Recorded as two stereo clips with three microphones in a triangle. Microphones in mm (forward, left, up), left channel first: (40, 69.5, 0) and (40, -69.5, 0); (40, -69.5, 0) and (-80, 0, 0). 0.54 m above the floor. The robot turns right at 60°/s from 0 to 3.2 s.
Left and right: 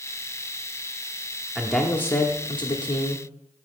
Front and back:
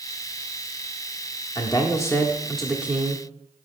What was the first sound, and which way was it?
A man speaking, 5° right.